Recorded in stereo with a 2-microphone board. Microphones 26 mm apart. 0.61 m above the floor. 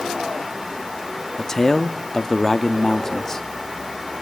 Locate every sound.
1.4 s a man speaking: 20° left (ahead or behind), 0.8 m